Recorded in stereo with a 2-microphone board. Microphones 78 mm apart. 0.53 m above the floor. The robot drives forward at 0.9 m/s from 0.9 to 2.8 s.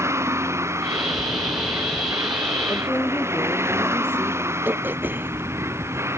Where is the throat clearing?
25° right (ahead or behind).